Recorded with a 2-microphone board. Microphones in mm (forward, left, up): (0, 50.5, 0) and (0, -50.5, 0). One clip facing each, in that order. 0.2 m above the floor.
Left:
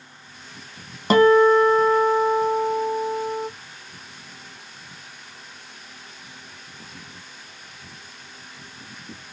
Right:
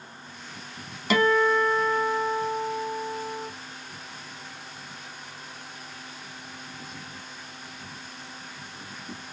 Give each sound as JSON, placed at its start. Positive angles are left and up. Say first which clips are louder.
{"t": 1.1, "sound": "a guitar", "louder": "left 8 dB", "side_deg": 40, "distance_m": 0.9}